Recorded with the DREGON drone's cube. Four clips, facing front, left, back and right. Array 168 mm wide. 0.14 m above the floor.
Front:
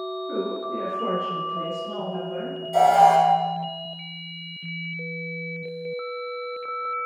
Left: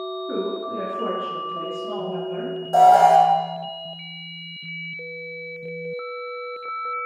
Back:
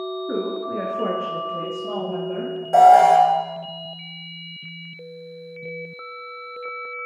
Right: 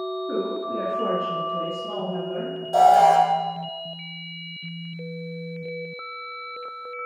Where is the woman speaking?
175° left, 1.9 m; by 2.5 s 170° right, 3.5 m.